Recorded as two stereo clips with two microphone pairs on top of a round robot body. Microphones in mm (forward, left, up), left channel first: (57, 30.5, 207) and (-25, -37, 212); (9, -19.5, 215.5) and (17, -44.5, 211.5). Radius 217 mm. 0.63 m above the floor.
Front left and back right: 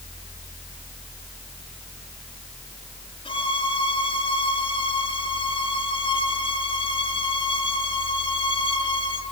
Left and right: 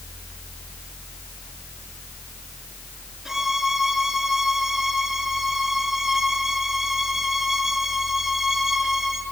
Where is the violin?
10° left, 5 m.